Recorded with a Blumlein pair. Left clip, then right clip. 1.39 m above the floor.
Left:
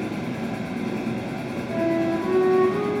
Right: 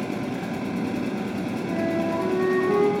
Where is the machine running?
65° right, 0.8 m.